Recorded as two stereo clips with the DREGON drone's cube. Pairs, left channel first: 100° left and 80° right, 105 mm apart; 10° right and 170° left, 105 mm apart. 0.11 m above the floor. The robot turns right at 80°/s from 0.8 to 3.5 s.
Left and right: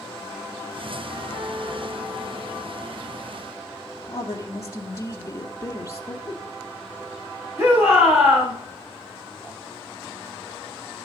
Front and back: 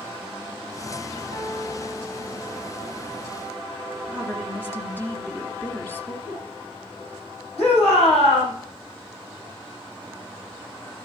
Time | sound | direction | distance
1.3 | a piano | 175° right | 7 m
4.0 | a woman speaking | 55° left | 2.0 m
6.2 | a giggle | 20° right | 7 m
7.6 | a shout | 15° right | 6.5 m